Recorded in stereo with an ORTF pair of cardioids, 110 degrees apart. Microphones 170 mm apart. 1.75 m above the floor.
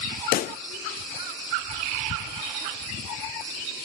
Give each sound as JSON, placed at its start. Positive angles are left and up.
{"t": 0.3, "sound": "a pop", "azimuth_deg": 60, "distance_m": 0.6}